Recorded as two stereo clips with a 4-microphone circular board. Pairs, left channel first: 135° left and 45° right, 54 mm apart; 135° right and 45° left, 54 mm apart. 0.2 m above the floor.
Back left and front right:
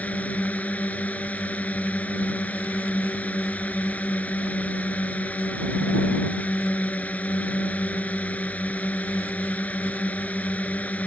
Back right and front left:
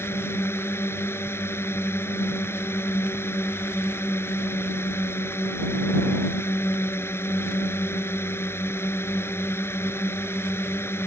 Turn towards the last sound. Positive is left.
turn(degrees=-170)